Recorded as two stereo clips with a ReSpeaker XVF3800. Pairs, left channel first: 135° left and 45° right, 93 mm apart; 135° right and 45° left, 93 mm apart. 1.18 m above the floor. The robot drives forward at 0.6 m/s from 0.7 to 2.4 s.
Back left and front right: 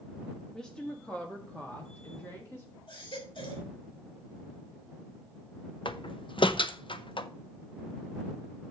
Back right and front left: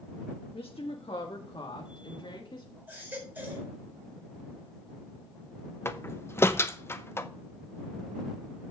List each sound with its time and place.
0.5 s a woman speaking: 145° right, 1.3 m; by 2.7 s 160° right, 2 m
2.9 s a baby crying: 115° left, 4 m
5.8 s a door slam: 160° left, 0.8 m